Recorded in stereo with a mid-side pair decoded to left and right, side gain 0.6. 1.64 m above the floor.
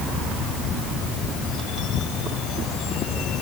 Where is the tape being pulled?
No tape being pulled in this recording.